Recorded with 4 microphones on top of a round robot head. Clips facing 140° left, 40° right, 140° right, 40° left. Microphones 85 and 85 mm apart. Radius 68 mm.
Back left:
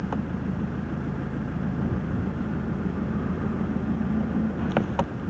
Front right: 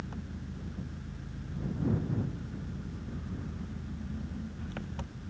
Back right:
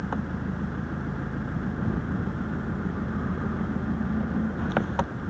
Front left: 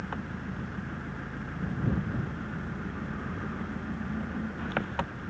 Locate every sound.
0.0 s an engine running: 155° left